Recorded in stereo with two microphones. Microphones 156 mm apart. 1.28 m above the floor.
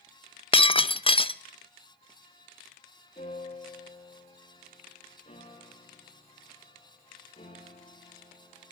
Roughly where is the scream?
I don't hear a scream.